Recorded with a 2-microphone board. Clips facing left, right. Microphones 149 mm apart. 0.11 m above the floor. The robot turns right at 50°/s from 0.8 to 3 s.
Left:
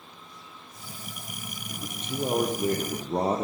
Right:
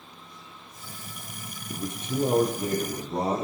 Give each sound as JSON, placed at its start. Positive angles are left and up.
{"t": 1.7, "sound": "a man speaking", "azimuth_deg": -30, "distance_m": 3.5}